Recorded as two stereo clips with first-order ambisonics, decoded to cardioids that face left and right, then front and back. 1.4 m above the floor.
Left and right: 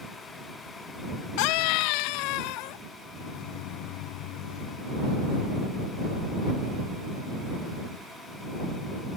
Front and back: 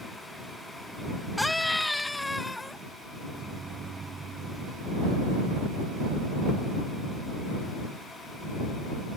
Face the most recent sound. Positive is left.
turn(degrees=110)